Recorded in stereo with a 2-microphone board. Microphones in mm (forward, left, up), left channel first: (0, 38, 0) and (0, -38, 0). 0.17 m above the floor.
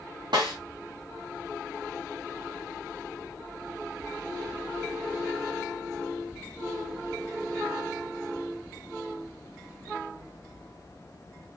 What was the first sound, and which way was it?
A snare drum, 80° right.